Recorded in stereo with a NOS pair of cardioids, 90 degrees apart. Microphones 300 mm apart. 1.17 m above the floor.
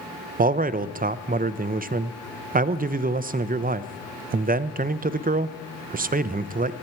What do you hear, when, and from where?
0.4 s a man speaking: 30° right, 0.6 m